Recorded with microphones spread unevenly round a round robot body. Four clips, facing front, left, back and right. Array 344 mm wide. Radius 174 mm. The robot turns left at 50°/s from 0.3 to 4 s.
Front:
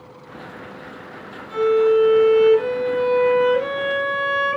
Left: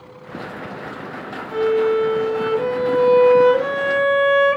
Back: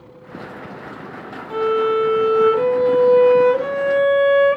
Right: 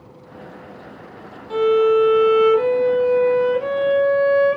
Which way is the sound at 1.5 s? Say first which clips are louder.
Right 2 dB, front 2 dB; 115° right.